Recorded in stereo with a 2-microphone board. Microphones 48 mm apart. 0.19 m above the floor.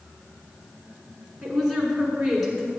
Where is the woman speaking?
Centre (ahead or behind), 2.5 m.